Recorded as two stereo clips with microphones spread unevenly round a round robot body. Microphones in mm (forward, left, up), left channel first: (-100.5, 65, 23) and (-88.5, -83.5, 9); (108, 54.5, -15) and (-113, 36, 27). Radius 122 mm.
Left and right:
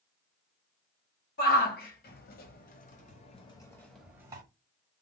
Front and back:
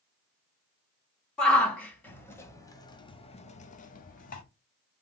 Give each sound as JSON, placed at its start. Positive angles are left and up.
{"t": 1.4, "sound": "a shout", "azimuth_deg": 90, "distance_m": 1.7}